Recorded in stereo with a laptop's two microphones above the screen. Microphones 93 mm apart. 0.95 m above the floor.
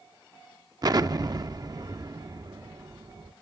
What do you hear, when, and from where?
0.8 s an explosion: 45° right (ahead or behind), 0.6 m